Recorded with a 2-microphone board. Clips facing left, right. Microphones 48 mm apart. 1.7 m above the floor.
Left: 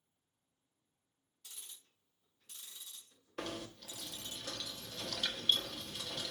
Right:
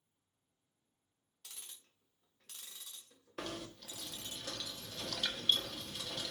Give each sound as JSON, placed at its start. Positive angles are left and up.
{"t": 1.4, "sound": "ticking", "side_deg": -75, "distance_m": 2.0}
{"t": 3.4, "sound": "knocking", "side_deg": 0, "distance_m": 1.3}